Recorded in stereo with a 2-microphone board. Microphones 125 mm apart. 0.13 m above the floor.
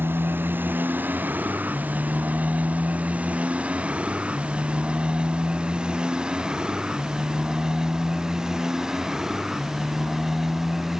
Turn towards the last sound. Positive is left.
turn(degrees=-5)  # may be behind; listen again after turning